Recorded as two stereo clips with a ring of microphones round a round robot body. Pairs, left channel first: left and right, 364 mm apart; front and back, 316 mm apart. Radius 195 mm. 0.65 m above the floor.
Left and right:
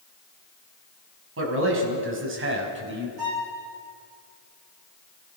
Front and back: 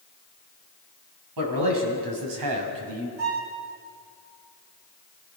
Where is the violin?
120° right, 8.5 m.